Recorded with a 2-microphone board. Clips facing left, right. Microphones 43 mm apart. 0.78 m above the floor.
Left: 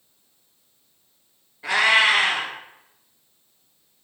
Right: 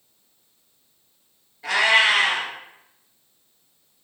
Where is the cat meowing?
15° left (ahead or behind), 1.9 m.